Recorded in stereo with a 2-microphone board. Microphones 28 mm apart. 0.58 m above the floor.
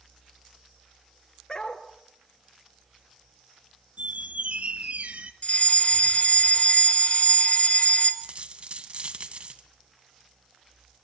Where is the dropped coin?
45° right (ahead or behind), 2 m.